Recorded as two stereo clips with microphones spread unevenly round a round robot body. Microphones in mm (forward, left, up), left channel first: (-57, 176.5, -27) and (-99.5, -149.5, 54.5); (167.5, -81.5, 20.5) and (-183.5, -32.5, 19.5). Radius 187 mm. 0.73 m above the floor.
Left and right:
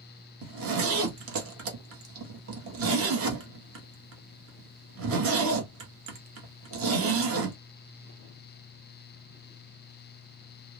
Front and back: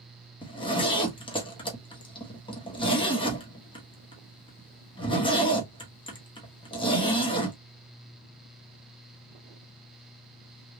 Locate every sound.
0.4 s a zipper: 70° right, 1.1 m